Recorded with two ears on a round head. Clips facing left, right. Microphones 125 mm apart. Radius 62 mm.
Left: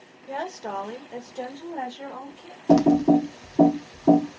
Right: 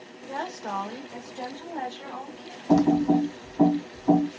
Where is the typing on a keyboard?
75° left (ahead or behind), 0.6 m.